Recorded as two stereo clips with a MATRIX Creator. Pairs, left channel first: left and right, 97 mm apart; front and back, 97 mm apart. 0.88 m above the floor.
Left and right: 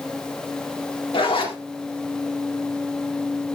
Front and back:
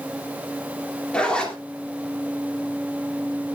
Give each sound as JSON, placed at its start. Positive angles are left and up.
{"t": 1.1, "sound": "a zipper", "azimuth_deg": 80, "distance_m": 2.0}